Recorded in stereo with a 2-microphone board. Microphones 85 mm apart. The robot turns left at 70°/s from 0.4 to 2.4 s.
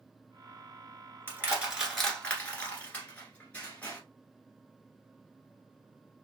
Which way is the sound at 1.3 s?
25° right (ahead or behind).